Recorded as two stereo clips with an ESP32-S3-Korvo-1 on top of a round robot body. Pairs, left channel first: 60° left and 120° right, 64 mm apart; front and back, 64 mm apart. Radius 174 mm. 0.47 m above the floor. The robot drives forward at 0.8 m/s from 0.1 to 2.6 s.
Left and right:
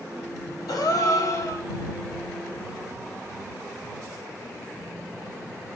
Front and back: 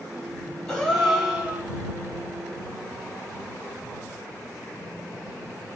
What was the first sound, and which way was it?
A gasp, 80° left.